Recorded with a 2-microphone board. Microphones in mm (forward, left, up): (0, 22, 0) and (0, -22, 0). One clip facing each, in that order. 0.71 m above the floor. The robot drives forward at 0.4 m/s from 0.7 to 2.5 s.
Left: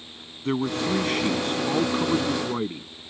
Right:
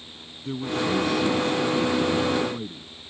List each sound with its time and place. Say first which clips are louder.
0.5 s a man speaking: left 1 dB; 55° left (ahead or behind); by 2.9 s 50° left (ahead or behind)